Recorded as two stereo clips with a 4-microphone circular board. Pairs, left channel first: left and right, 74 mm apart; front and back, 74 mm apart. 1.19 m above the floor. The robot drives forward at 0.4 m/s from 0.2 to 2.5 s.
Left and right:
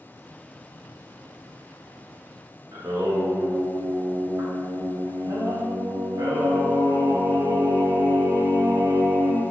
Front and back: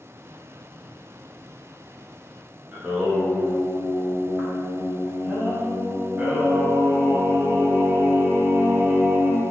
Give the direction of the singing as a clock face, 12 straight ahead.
4 o'clock.